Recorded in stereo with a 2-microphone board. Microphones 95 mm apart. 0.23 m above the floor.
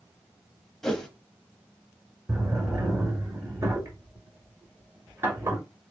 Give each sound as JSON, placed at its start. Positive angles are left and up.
{"t": 0.8, "sound": "a whoosh", "side_deg": 5, "distance_m": 0.9}
{"t": 2.3, "sound": "a drawer", "side_deg": -30, "distance_m": 1.9}